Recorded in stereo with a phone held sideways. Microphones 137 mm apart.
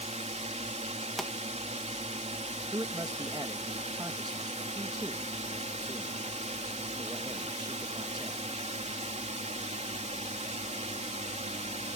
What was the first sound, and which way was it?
A drone, 55° right (ahead or behind).